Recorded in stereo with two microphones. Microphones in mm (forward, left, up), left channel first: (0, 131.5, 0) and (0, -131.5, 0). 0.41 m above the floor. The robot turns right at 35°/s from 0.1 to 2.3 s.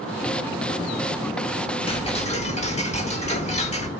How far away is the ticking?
About 1.0 m.